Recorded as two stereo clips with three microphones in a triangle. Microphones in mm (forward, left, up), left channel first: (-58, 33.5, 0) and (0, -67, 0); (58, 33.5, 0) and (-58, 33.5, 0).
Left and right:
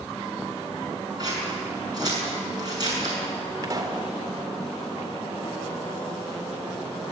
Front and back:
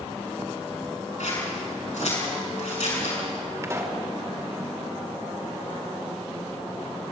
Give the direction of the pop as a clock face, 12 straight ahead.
4 o'clock.